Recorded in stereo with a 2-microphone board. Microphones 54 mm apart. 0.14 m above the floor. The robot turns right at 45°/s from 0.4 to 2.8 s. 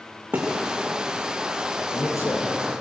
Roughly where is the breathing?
I don't hear breathing.